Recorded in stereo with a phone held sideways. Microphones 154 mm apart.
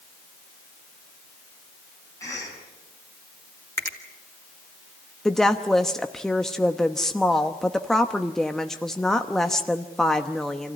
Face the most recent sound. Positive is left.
turn(degrees=5)  # may be behind; listen again after turning